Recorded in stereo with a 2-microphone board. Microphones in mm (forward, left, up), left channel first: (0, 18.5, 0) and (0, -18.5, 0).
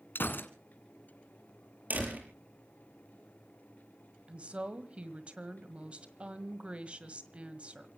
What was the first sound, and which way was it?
A gunshot, 65° left (ahead or behind).